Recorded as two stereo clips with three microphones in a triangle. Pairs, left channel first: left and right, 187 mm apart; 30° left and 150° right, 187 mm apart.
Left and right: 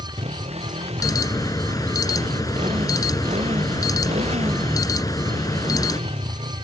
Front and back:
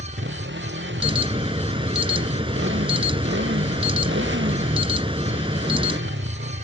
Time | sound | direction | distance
0.0 | a motorcycle | 145° right | ?
1.0 | an alarm | 155° left | ?